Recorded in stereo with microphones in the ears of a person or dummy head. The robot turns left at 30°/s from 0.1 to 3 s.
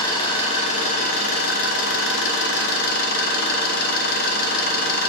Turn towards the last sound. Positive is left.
turn(degrees=65)